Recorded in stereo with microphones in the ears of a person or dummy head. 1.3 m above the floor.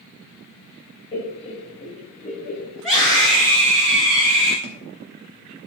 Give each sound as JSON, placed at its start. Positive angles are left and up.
{"t": 1.1, "sound": "laughter", "side_deg": 30, "distance_m": 4.5}
{"t": 2.8, "sound": "a scream", "side_deg": 5, "distance_m": 4.5}
{"t": 4.6, "sound": "a thud", "side_deg": -35, "distance_m": 1.3}